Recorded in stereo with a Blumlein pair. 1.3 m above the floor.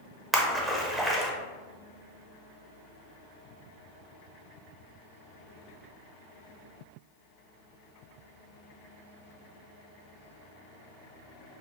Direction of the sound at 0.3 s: 5° right.